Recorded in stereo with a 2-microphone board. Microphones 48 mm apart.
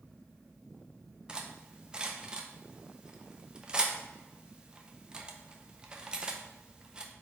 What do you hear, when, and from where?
1.3 s cutlery clinking: 20° right (ahead or behind), 0.7 m